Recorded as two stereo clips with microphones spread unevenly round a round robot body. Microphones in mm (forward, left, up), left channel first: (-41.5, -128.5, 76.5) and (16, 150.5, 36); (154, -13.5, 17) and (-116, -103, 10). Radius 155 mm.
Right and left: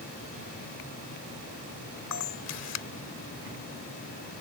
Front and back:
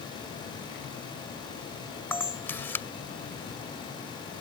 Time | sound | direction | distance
2.1 | a camera shutter | 65° right | ?